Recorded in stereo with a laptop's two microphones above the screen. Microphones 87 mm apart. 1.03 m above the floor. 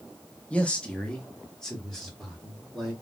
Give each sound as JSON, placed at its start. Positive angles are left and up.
{"t": 0.5, "sound": "a man speaking", "side_deg": 15, "distance_m": 0.8}